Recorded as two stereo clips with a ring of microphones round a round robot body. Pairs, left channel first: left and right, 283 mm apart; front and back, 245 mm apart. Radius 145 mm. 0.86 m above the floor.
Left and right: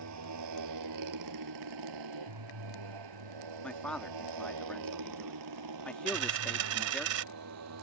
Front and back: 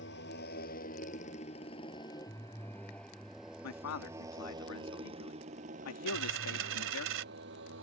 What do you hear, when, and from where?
0.0 s a motorcycle: 55° right; by 7.8 s 125° right
3.6 s a man speaking: 5° left
6.1 s a dropped coin: 130° right